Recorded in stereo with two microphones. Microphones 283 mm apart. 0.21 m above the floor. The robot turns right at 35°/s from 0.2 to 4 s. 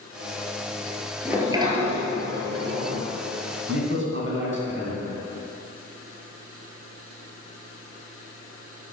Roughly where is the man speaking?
Right.